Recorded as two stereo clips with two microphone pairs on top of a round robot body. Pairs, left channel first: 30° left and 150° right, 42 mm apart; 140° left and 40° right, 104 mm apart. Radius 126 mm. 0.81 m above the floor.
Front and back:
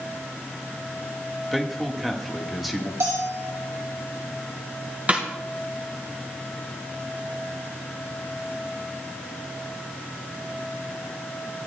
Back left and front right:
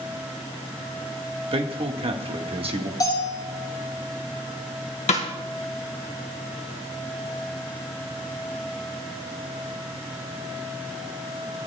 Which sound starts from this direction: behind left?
A snare drum, at 5.1 s.